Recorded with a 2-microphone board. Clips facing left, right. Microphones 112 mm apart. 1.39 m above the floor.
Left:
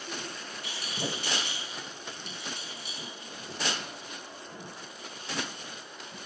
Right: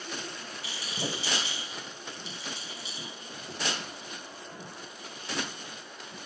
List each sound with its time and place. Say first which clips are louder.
0.6 s a rattle: even; 55° left (ahead or behind), 1.2 m